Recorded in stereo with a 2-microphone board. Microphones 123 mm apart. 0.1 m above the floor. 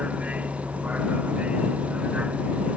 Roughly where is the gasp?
No gasp in this recording.